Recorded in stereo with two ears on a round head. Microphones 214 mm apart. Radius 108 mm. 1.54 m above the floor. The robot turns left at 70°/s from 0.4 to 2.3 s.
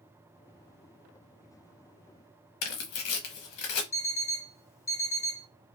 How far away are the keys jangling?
I don't hear keys jangling.